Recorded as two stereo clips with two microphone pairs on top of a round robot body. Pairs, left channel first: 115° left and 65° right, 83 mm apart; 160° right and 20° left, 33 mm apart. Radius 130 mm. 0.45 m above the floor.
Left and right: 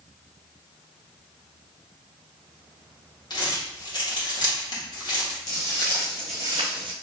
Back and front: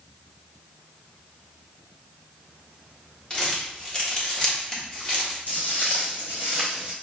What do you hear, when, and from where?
3.3 s crumpling: 140° left, 1.7 m
5.5 s footsteps: 160° left, 1.7 m; by 6.9 s 55° right, 0.9 m